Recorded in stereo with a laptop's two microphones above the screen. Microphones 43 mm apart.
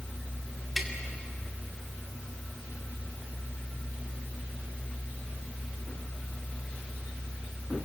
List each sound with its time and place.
0.8 s tapping: centre (ahead or behind), 2 m